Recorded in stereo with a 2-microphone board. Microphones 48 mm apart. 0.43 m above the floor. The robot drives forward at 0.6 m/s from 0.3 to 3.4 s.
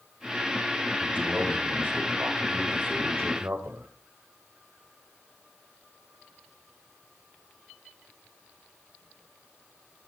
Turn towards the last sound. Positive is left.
turn(degrees=-55)  # may be behind; listen again after turning